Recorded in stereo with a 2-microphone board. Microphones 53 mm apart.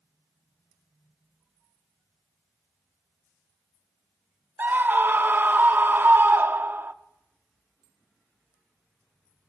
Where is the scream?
40° right (ahead or behind), 0.8 m.